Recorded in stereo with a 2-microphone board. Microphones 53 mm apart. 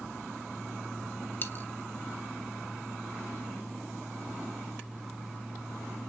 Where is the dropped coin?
45° left (ahead or behind), 0.8 m.